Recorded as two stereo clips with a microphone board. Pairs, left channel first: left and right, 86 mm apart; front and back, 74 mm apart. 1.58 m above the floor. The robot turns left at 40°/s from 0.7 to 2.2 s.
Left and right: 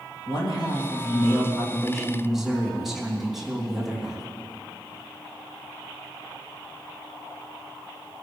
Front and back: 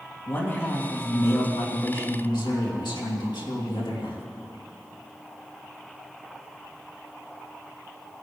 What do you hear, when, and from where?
0.3 s a man speaking: 55° left, 3 m; by 4.2 s 5° right, 3 m